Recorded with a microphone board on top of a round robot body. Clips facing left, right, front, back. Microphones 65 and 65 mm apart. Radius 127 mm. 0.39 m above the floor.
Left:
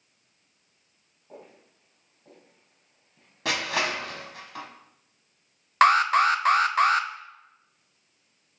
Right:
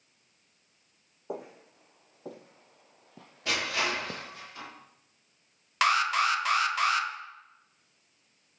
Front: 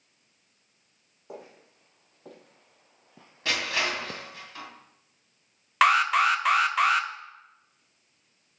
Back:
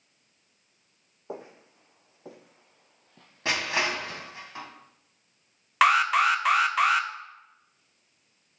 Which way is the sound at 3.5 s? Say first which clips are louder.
Left 3 dB, back 1 dB; 115° left.